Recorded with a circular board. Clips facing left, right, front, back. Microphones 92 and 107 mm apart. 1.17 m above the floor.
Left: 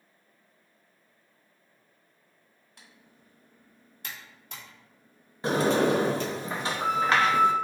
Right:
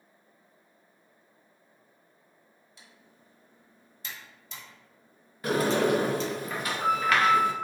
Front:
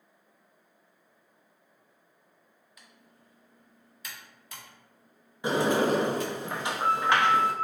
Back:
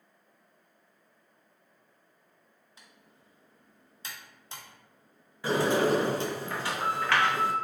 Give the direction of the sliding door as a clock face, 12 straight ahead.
10 o'clock.